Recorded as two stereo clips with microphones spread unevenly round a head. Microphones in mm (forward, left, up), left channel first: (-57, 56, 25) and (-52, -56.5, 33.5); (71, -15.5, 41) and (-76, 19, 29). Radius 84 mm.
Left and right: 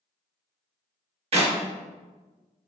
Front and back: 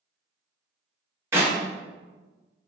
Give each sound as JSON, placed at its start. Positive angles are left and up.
{"t": 1.3, "sound": "a clap", "azimuth_deg": -120, "distance_m": 1.2}